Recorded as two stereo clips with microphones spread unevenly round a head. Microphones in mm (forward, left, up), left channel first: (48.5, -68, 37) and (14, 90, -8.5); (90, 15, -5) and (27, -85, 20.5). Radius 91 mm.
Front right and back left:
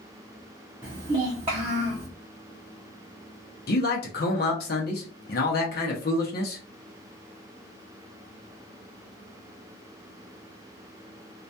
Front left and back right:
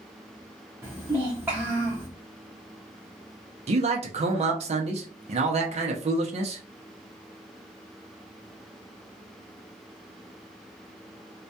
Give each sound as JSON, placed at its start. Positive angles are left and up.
{"t": 0.8, "sound": "a child speaking", "azimuth_deg": 170, "distance_m": 0.5}
{"t": 3.7, "sound": "a man speaking", "azimuth_deg": -105, "distance_m": 0.6}